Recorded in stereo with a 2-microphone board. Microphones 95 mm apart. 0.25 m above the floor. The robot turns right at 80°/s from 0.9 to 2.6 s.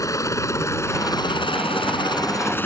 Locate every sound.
0.0 s a helicopter: 35° left (ahead or behind); by 2.7 s 20° left (ahead or behind)